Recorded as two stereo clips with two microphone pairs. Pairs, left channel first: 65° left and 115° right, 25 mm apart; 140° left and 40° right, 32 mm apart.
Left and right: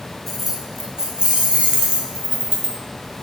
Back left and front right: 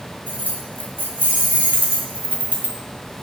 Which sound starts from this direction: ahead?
Keys jangling, at 0.3 s.